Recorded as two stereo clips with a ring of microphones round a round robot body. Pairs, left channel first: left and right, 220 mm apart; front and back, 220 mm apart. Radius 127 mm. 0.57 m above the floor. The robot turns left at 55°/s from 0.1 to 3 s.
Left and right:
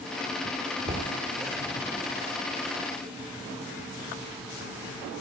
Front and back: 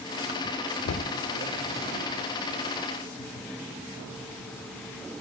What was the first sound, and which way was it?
Knocking, 25° right.